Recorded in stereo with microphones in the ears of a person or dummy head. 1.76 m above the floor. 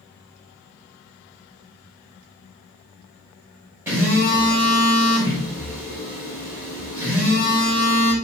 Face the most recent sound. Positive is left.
turn(degrees=-10)  # may be behind; listen again after turning